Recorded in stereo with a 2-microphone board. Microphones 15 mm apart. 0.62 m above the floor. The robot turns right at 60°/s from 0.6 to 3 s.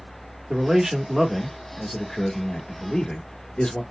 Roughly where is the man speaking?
Ahead right.